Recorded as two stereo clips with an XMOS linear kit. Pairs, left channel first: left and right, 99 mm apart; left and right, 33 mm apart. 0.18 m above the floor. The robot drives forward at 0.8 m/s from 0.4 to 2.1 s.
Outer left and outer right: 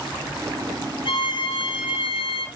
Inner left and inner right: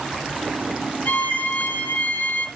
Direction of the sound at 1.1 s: 60° left (ahead or behind).